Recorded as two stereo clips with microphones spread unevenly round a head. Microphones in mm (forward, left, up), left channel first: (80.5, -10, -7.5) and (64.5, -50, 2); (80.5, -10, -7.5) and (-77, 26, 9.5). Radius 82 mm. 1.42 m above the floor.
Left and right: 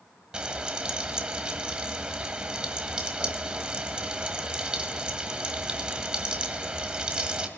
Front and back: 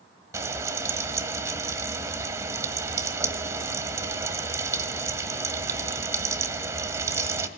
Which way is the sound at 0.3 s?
140° right.